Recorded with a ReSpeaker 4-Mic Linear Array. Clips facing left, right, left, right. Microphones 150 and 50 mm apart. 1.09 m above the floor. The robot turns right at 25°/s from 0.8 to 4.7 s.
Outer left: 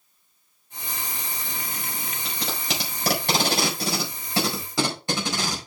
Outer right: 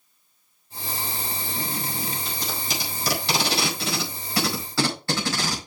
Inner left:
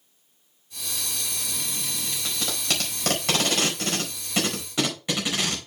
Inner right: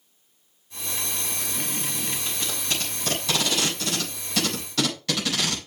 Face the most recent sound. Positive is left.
turn(degrees=20)  # may be behind; listen again after turning